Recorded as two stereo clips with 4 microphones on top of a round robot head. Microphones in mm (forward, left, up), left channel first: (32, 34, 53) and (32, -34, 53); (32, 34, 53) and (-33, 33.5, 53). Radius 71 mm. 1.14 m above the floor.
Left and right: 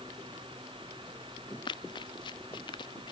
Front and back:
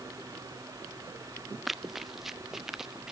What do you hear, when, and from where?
1.7 s running footsteps: 95° left; by 3.1 s 100° left